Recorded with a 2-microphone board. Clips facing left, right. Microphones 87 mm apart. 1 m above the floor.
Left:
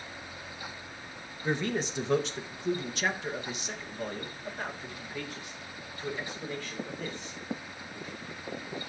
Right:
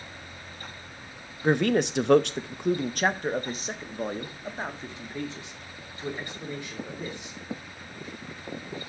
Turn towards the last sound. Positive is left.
turn(degrees=-15)  # may be behind; listen again after turning